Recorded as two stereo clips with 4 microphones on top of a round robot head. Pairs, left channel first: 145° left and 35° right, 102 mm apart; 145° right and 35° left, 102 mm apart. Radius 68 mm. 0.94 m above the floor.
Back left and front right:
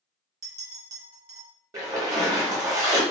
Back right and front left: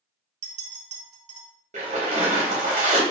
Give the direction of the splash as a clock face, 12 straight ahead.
11 o'clock.